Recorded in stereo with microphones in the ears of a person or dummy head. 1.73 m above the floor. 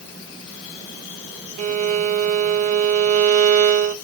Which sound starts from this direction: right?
A violin, at 1.6 s.